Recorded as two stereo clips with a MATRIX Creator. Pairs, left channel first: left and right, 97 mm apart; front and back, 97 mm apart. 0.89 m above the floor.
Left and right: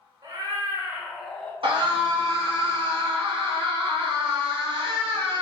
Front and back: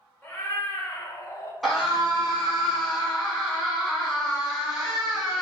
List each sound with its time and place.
0.2 s a cat meowing: 65° right, 0.7 m; by 1.5 s 30° left, 0.6 m
1.6 s a scream: 90° right, 1.3 m